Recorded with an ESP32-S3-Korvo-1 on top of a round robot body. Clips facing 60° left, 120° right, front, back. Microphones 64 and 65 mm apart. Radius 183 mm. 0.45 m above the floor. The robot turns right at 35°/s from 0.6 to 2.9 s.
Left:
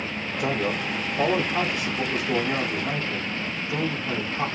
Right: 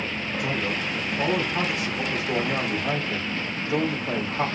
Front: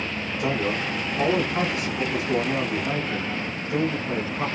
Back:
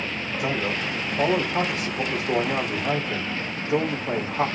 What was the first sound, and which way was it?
A man speaking, 90° left.